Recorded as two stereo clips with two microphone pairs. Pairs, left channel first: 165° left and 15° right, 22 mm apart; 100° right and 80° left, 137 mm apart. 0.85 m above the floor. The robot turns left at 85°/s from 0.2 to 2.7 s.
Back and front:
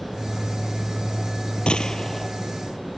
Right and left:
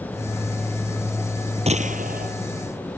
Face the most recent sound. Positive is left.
turn(degrees=35)